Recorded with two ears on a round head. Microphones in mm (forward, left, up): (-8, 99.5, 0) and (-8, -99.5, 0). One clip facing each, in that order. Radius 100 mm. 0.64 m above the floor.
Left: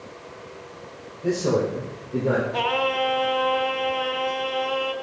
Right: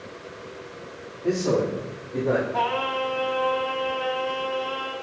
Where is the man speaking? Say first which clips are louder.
Left 1 dB; 70° left (ahead or behind), 3 m; by 2.4 s 65° left (ahead or behind), 2.5 m.